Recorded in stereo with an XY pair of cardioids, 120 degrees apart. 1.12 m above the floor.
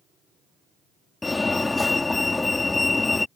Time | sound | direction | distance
1.2 | a fire alarm | 15° left | ?